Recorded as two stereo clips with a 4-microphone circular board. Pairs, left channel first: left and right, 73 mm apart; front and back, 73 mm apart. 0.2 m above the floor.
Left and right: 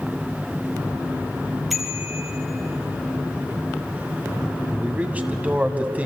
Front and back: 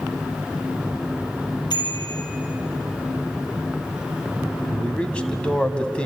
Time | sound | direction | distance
1.7 | a bicycle bell | straight ahead | 4 m
4.7 | a man speaking | 55° right | 1.5 m